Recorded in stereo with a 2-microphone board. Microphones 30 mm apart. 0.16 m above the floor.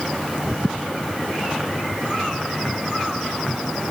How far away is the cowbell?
No cowbell in this recording.